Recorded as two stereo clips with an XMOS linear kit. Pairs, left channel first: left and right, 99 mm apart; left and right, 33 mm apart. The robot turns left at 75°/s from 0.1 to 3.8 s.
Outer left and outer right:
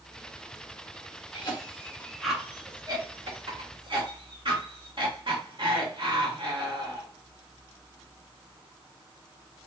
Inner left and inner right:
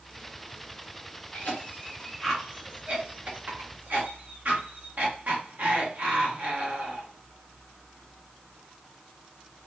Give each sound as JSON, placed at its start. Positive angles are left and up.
{"t": 1.3, "sound": "a cough", "side_deg": 60, "distance_m": 1.6}